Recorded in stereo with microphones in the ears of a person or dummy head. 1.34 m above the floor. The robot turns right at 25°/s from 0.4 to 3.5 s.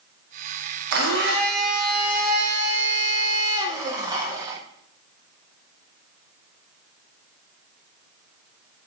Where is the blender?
85° right, 0.6 m; by 4.6 s 20° right, 0.6 m.